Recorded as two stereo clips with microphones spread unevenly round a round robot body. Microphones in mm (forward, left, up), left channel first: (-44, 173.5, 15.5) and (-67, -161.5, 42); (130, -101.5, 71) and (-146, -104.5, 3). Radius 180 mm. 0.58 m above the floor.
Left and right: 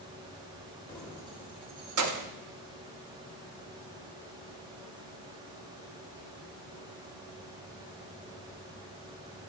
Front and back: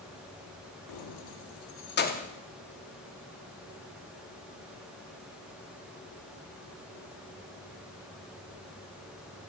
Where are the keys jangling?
5° left, 0.8 m; by 2.3 s 75° right, 0.9 m.